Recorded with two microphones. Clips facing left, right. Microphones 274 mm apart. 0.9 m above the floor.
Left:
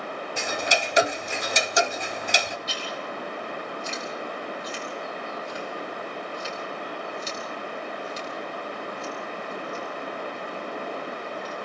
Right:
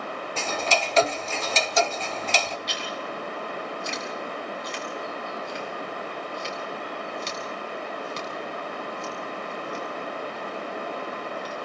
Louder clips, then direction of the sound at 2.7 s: Even; 5° left (ahead or behind).